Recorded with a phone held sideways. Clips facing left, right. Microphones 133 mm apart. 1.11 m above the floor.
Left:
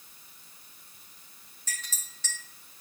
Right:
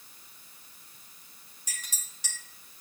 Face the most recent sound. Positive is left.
turn(degrees=-15)  # may be behind; listen again after turning